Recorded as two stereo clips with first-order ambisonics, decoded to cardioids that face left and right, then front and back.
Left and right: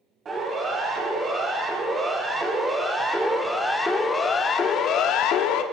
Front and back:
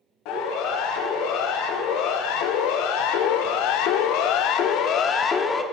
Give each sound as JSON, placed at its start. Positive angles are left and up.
{"t": 0.2, "sound": "a siren", "azimuth_deg": -25, "distance_m": 6.5}